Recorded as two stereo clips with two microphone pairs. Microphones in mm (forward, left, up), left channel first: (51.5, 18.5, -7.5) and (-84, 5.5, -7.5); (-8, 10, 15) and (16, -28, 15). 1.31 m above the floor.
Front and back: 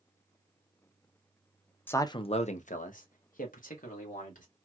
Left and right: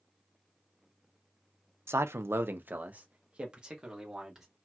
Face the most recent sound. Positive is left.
turn(degrees=20)